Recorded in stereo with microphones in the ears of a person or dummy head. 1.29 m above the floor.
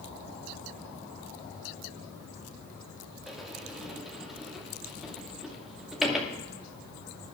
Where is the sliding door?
10° right (ahead or behind), 2 m.